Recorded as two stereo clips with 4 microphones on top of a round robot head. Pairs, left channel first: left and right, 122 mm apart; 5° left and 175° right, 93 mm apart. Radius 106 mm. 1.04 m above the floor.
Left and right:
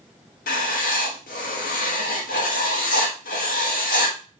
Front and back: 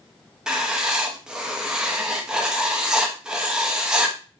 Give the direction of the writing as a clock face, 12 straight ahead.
8 o'clock.